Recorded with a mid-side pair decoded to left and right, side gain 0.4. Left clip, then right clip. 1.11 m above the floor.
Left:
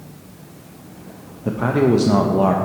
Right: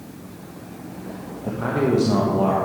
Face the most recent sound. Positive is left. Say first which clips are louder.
# left 4 dB
turn(degrees=45)